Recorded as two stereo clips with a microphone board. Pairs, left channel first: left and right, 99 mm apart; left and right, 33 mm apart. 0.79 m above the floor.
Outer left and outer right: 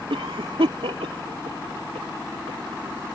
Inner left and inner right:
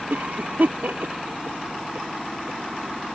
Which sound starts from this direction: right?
A cough, at 0.1 s.